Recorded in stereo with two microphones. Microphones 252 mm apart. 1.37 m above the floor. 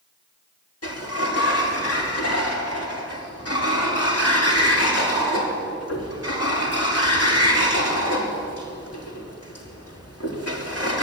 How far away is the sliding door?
About 4.5 m.